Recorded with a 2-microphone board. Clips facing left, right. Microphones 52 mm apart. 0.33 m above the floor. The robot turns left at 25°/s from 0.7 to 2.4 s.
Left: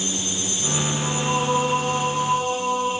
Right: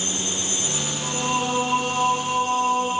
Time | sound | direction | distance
1.0 | singing | 5° left | 6.5 m